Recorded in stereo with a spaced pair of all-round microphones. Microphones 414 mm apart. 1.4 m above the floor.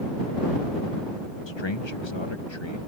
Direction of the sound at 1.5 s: 75° left (ahead or behind).